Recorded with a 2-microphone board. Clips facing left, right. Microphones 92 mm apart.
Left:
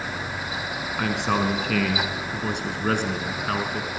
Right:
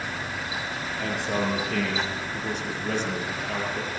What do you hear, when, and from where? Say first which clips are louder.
1.0 s a man speaking: left 4 dB; 75° left (ahead or behind), 3.5 m; by 3.9 s 55° left (ahead or behind), 4.5 m